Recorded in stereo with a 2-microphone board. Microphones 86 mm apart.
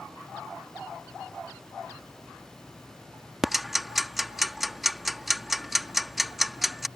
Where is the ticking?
5° right (ahead or behind).